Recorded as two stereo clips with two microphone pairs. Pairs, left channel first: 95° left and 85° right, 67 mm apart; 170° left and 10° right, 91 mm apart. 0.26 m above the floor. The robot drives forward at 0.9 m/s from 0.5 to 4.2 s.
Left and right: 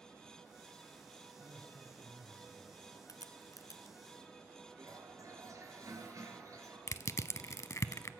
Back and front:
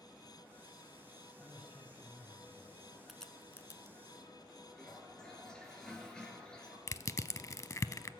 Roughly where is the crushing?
Behind left.